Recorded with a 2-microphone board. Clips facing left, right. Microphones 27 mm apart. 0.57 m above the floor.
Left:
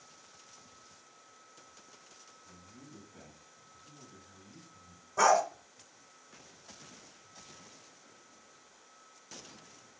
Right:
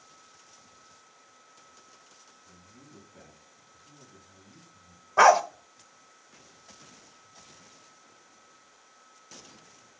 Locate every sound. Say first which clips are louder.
2.4 s a man speaking: left 1 dB; 5° right (ahead or behind), 3.5 m
5.2 s a dog barking: right 7 dB; 55° right (ahead or behind), 0.8 m